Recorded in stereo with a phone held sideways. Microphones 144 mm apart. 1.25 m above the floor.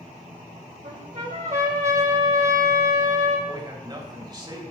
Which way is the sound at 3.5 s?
30° right (ahead or behind).